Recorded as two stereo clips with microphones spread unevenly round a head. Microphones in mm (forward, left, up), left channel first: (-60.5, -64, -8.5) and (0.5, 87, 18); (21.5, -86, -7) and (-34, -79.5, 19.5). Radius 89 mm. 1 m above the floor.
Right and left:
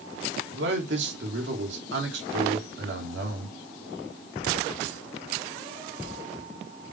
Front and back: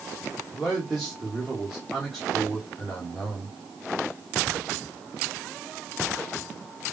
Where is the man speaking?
75° left, 3 m.